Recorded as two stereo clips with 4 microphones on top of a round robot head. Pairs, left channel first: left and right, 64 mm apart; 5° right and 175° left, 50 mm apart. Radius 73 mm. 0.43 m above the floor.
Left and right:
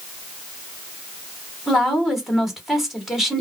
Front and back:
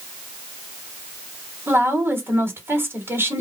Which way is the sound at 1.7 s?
175° right.